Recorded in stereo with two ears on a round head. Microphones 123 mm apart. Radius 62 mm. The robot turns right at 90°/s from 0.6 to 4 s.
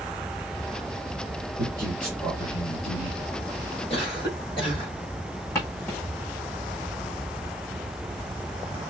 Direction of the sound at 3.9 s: 45° left (ahead or behind).